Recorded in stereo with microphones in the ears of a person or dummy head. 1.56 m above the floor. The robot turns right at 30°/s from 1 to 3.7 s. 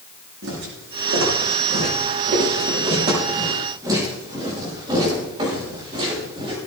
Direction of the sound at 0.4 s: 80° right.